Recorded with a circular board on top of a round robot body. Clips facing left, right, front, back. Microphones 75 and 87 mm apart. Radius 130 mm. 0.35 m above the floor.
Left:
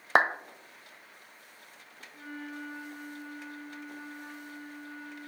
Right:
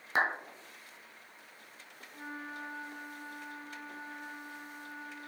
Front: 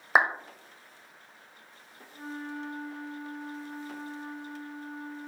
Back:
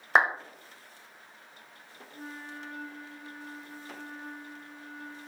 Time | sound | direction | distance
0.1 | a clap | 85° left | 1.7 m
2.1 | a flute | 40° right | 2 m